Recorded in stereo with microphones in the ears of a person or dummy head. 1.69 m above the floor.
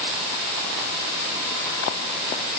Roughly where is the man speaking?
No man speaking in this recording.